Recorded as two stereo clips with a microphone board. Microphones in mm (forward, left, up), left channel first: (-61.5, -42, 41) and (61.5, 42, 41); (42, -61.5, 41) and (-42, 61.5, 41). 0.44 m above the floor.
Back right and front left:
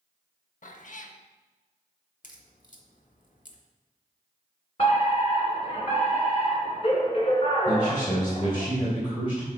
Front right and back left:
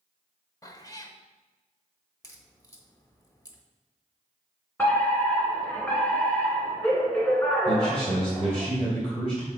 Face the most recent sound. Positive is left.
turn(degrees=-95)